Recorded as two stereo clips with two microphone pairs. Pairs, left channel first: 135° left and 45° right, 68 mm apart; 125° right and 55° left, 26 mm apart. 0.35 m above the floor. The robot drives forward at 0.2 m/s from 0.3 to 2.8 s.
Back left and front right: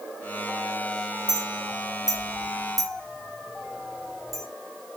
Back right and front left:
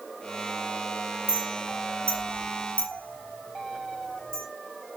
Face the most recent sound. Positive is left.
turn(degrees=-135)